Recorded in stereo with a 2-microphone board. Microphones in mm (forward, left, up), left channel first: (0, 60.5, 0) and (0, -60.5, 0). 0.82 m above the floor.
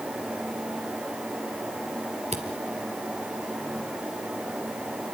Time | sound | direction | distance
2.3 | a camera shutter | 60° right (ahead or behind) | 2.5 m